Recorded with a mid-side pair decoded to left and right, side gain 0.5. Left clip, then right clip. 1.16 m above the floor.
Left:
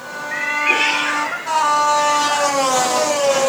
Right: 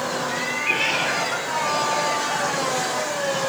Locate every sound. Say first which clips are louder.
0.3 s a cat meowing: left 9 dB; 45° left, 1.5 m; by 2.6 s 15° left, 5 m